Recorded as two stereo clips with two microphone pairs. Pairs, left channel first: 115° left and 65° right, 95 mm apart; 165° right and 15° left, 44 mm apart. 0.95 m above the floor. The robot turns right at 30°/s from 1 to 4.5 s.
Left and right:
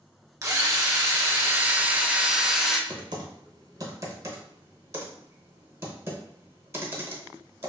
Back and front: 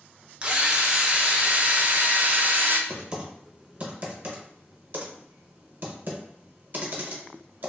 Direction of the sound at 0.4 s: 35° right.